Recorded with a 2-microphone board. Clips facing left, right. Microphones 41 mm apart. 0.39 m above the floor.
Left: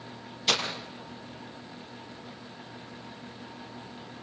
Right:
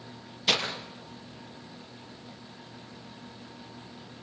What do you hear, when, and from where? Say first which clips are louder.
0.5 s breaking glass: right 1 dB; 10° right (ahead or behind), 3 m